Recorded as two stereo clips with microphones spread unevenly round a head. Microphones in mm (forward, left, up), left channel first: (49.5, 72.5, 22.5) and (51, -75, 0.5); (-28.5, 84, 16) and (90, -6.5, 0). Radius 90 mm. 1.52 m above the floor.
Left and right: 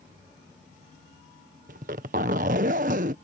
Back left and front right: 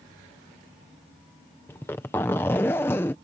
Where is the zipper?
140° right.